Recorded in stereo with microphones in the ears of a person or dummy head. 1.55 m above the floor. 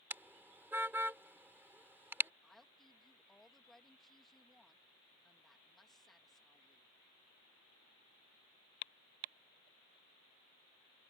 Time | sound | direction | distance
0.1 | a car horn | 10° right (ahead or behind) | ?
2.4 | a woman speaking | centre (ahead or behind) | ?